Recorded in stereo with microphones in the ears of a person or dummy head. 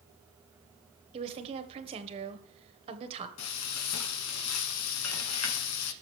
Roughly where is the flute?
I don't hear a flute.